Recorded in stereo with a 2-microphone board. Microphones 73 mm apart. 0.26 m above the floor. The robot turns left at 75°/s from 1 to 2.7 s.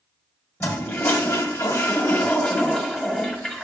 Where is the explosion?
No explosion in this recording.